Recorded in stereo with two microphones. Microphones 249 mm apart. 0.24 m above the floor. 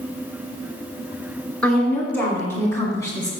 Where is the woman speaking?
5° left (ahead or behind), 2.5 m; by 3.3 s 15° left (ahead or behind), 2 m.